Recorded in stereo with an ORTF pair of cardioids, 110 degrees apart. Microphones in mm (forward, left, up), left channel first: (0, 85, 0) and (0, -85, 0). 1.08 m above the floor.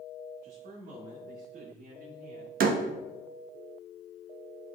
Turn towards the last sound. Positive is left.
turn(degrees=-55)